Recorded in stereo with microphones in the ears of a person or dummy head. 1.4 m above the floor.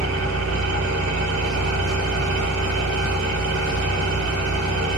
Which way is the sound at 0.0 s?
85° right.